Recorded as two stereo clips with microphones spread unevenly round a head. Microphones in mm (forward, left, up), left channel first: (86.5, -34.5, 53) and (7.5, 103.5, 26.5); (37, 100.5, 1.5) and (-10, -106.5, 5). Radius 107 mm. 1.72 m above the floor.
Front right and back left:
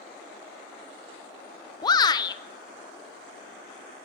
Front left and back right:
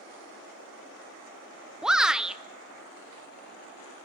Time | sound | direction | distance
1.8 | a shout | 20° right | 0.6 m